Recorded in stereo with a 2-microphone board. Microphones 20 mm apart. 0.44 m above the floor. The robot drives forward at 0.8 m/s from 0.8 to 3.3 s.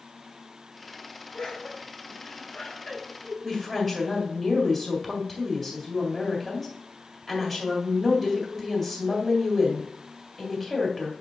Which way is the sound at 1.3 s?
45° left (ahead or behind).